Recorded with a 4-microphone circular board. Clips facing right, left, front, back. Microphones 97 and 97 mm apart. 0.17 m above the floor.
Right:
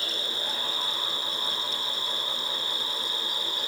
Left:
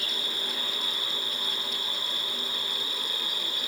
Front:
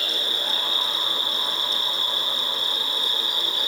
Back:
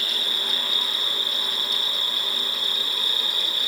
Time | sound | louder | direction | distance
0.0 | an insect | right 2 dB, front 2 dB | 130° left | 9 m